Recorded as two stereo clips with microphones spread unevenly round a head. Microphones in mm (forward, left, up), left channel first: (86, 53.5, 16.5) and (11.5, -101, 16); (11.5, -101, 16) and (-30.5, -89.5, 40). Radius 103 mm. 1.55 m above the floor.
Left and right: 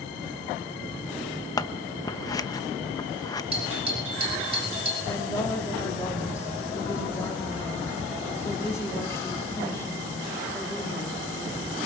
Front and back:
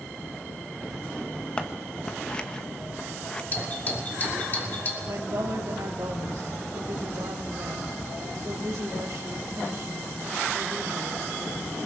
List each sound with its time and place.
1.6 s scissors: 110° left, 0.8 m
3.5 s a doorbell: 60° right, 8 m
5.1 s a woman speaking: 140° left, 3.5 m